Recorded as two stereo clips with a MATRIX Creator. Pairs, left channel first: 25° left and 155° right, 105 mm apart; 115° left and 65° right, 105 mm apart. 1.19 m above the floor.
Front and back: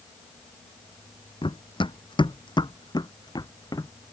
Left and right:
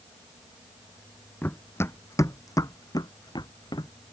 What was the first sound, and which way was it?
Running footsteps, 45° left.